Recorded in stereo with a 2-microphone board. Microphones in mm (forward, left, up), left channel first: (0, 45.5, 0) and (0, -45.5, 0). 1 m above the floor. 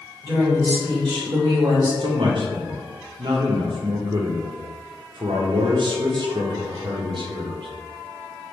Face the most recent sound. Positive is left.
turn(degrees=-60)  # may be behind; listen again after turning